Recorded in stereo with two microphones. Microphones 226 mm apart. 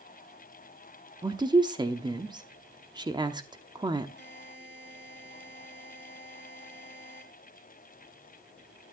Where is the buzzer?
45° right (ahead or behind), 6 m.